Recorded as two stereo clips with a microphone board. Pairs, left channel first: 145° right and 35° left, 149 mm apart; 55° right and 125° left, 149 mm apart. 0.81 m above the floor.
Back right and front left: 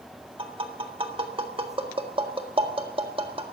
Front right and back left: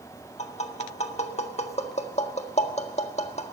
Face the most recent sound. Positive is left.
turn(degrees=-15)